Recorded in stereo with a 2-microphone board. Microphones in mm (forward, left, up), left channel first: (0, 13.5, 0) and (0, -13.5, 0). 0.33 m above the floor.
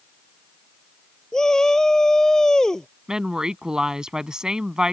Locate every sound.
1.3 s a shout: 25° left (ahead or behind)
3.1 s a woman speaking: 30° right (ahead or behind)